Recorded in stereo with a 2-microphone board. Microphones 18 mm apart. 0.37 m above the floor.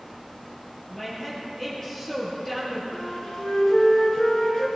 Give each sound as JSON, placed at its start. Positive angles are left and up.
{"t": 0.9, "sound": "a woman speaking", "side_deg": 20, "distance_m": 6.0}
{"t": 2.9, "sound": "a flute", "side_deg": 45, "distance_m": 3.5}